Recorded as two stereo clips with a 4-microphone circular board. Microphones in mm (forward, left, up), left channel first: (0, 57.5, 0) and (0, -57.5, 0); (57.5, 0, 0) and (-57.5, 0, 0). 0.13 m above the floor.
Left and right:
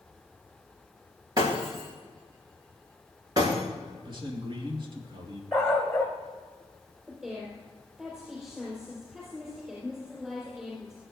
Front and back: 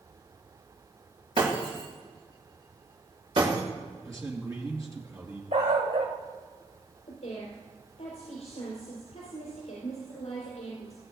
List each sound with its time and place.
1.4 s breaking glass: 145° right, 6 m
4.0 s a man speaking: 125° right, 2.5 m
5.5 s a dog barking: 175° left, 2.5 m
7.1 s a woman speaking: 5° right, 4.5 m